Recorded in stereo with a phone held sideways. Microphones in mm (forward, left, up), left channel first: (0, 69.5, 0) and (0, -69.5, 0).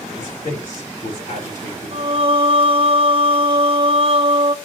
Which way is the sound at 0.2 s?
65° left (ahead or behind).